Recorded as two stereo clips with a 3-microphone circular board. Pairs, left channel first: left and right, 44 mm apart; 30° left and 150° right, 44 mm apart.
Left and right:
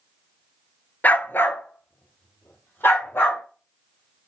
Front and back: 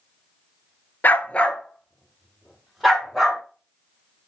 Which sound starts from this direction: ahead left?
A dog barking, at 1.0 s.